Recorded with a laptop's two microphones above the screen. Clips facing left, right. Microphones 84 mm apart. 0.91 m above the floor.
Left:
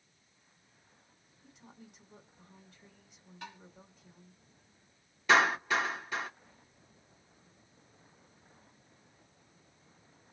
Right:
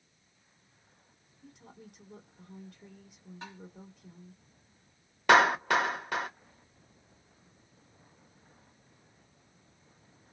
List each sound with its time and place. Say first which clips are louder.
1.4 s a woman speaking: right 3 dB; 60° right (ahead or behind), 1.5 m
3.4 s tapping: even; 30° right (ahead or behind), 1.9 m
5.3 s a clap: right 4 dB; 65° right (ahead or behind), 1.1 m